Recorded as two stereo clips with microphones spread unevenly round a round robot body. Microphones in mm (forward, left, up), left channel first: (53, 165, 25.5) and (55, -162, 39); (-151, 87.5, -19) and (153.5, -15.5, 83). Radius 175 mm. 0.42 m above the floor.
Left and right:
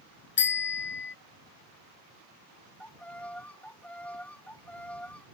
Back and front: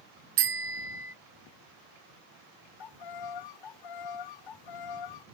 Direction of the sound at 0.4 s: 35° left.